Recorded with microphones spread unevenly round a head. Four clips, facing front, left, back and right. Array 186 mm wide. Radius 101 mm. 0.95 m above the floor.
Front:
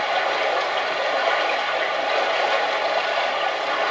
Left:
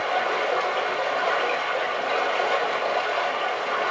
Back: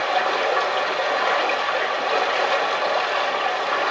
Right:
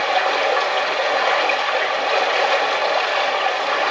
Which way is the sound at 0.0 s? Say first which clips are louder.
Right 5 dB, back 1 dB; 105° right.